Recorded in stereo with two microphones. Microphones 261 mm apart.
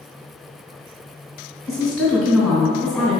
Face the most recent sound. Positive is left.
turn(degrees=0)  # may be behind; listen again after turning